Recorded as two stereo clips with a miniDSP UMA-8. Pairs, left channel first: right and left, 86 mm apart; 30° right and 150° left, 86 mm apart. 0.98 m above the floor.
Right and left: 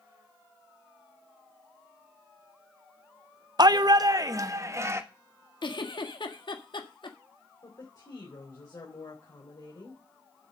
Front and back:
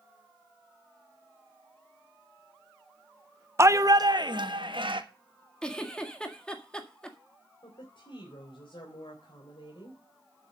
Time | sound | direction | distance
3.6 | a shout | 100° left | 0.8 m
5.6 | a giggle | 110° right | 1.7 m
7.6 | a woman speaking | 50° right | 3.5 m